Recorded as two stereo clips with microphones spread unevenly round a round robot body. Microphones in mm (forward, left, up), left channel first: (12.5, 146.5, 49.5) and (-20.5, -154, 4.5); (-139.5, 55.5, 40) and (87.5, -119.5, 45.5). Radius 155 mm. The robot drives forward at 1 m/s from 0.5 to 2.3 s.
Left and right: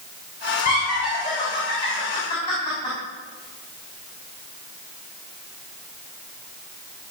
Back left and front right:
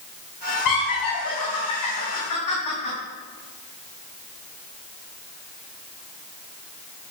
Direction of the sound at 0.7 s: 150° left.